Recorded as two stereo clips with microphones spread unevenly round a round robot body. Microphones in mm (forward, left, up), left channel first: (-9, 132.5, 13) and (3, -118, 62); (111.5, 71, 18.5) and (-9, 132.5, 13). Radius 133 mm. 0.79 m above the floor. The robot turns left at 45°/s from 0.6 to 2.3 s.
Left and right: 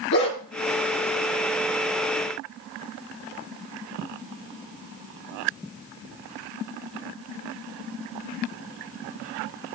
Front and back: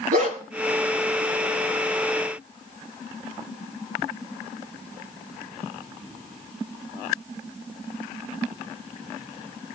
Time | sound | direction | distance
0.1 | a dog barking | 140° left | 4.5 m